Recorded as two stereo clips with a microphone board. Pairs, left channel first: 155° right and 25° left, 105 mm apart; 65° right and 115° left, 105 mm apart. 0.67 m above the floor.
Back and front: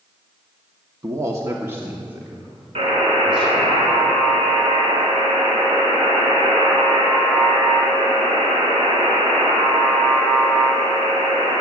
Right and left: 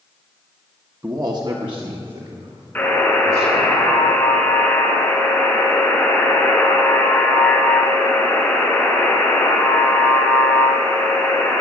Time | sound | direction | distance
1.0 | a man speaking | 65° left | 1.0 m
2.8 | a buzzer | 10° left | 4 m